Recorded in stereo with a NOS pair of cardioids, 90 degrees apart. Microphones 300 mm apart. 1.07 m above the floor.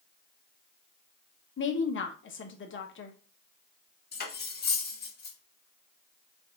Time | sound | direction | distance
1.6 | a woman speaking | 45° left | 1.1 m
4.1 | cutlery clinking | 35° left | 1.4 m